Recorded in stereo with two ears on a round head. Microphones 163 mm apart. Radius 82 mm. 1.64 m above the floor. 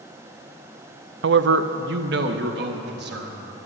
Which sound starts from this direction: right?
A man speaking, at 1.2 s.